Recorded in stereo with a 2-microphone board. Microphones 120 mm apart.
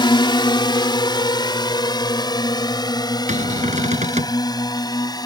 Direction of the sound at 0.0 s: 40° left (ahead or behind).